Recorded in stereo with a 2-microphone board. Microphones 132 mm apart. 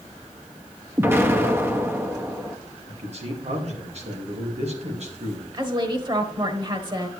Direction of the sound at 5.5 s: 35° right (ahead or behind).